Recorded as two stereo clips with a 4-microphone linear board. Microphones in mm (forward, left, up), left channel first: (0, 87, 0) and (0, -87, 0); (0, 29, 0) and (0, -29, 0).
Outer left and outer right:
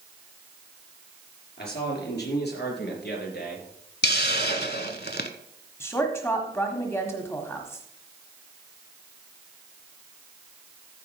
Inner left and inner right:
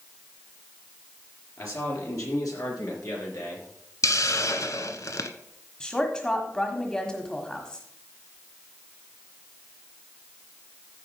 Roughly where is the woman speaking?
Centre.